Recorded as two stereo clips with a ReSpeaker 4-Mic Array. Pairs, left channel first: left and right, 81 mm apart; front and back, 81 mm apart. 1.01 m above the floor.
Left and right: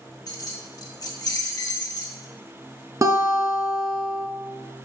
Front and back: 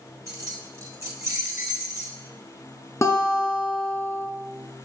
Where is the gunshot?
I don't hear a gunshot.